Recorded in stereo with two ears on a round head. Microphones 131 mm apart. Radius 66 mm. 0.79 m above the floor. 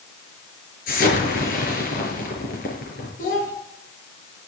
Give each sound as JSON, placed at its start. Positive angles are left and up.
{"t": 0.9, "sound": "an explosion", "side_deg": 65, "distance_m": 6.5}
{"t": 3.2, "sound": "a child speaking", "side_deg": 60, "distance_m": 6.0}